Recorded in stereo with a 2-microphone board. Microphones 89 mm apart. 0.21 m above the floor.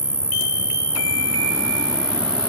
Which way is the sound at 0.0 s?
55° left (ahead or behind).